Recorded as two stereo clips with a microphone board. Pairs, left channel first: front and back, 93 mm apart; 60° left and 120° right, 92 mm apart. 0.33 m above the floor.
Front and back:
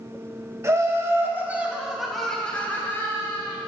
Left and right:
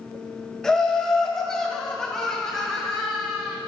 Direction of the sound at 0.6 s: 140° left.